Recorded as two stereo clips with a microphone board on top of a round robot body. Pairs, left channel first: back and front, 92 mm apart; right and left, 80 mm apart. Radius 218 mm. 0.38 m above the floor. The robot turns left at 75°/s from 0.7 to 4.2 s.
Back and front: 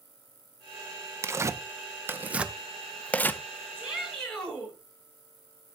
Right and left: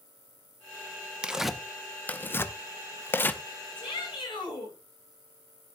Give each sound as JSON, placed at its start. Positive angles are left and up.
{"t": 1.2, "sound": "tearing paper", "azimuth_deg": 20, "distance_m": 1.0}
{"t": 3.8, "sound": "a shout", "azimuth_deg": -70, "distance_m": 8.5}